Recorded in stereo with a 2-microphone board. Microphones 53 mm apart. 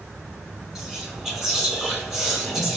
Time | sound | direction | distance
0.8 | whispering | 5° right (ahead or behind) | 1.1 m